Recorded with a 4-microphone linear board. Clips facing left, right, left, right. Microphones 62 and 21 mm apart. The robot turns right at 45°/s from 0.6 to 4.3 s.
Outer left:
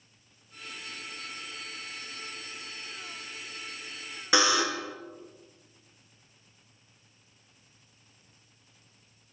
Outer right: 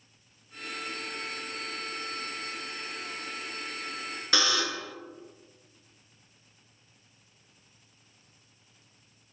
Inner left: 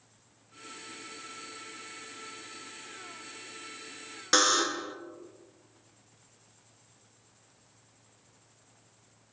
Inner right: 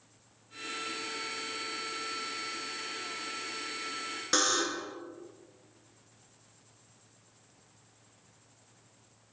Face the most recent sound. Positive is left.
turn(degrees=20)  # may be behind; listen again after turning